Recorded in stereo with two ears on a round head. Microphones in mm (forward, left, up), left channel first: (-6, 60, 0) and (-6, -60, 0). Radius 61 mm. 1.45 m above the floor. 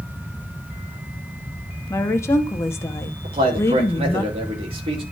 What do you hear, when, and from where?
1.9 s a woman speaking: 20° left (ahead or behind), 1.0 m
3.2 s a man speaking: 45° right (ahead or behind), 2.5 m